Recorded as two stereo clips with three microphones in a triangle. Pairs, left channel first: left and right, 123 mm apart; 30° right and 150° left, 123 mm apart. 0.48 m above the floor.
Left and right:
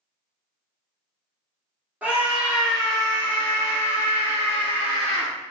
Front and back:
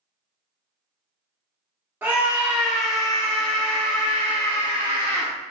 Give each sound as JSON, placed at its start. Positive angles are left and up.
{"t": 2.0, "sound": "a scream", "azimuth_deg": -155, "distance_m": 0.9}